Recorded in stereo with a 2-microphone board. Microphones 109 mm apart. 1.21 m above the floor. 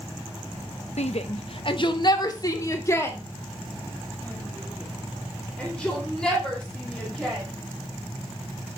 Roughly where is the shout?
Left.